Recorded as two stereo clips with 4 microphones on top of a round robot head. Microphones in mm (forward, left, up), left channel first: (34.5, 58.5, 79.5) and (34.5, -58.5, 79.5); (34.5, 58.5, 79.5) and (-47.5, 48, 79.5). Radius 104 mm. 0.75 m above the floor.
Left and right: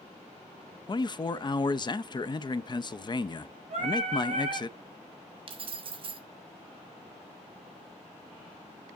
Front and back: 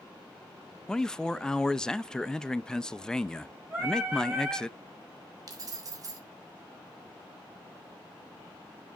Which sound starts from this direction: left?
A man speaking, at 0.9 s.